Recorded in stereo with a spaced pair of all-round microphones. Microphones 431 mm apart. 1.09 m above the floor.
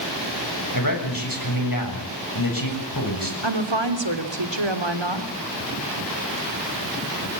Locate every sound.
0.7 s a man speaking: 50° left (ahead or behind), 8 m
3.4 s a woman speaking: 85° right, 3 m